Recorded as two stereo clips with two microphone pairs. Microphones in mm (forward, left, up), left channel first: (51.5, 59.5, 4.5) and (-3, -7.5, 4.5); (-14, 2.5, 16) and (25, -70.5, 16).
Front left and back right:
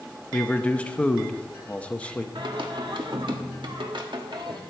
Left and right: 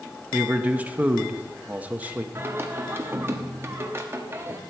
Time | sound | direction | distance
0.3 | a man speaking | 10° right | 0.8 m
2.4 | singing | 120° right | 1.3 m